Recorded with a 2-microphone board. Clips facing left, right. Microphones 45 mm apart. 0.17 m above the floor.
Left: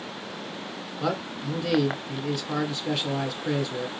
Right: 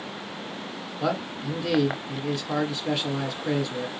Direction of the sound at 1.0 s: Centre (ahead or behind).